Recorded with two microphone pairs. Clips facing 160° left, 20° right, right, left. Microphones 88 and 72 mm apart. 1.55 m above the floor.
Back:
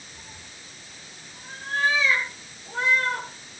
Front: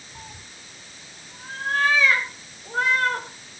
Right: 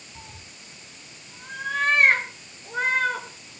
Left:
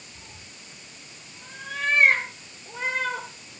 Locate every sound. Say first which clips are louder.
0.1 s a cat meowing: front 3 dB, right 2 dB; 40° right, 3.5 m; by 3.3 s 65° right, 6.5 m